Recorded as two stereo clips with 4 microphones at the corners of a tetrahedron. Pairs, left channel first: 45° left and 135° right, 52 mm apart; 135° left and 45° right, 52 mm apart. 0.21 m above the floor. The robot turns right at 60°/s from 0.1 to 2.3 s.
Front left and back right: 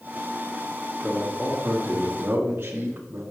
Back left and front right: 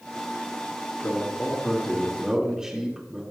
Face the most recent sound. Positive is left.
turn(degrees=-115)